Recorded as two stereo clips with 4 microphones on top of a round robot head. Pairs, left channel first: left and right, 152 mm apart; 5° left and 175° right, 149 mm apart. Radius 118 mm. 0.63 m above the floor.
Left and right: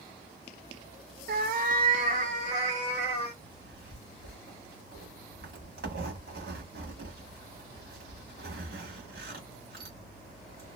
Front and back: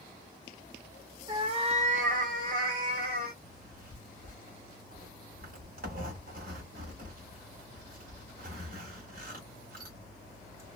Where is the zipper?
130° right, 1.4 m.